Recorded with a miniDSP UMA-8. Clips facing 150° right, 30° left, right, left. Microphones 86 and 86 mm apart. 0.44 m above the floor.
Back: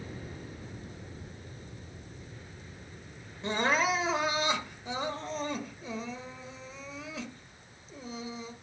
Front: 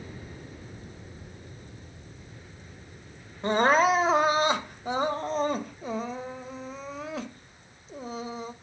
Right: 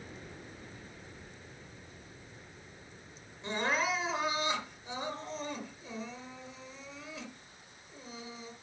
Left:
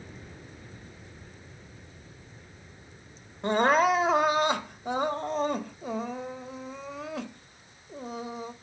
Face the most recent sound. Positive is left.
turn(degrees=65)